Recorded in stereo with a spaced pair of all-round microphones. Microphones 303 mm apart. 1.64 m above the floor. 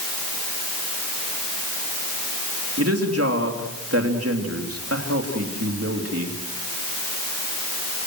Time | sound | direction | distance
2.8 | a woman speaking | 50° right (ahead or behind) | 3 m